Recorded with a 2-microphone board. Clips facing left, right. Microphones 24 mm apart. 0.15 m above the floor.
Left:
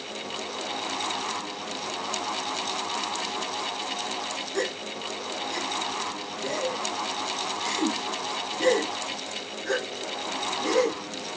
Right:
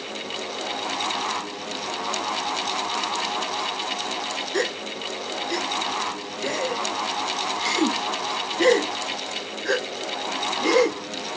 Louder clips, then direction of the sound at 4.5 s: Right 4 dB; 55° right (ahead or behind).